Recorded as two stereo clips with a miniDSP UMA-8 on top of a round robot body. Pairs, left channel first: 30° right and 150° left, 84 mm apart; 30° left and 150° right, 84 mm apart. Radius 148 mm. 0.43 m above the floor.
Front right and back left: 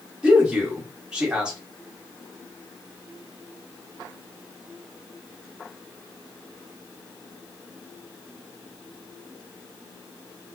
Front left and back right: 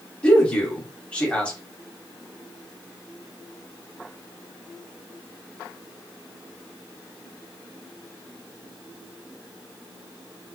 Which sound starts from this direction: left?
A man speaking, at 0.2 s.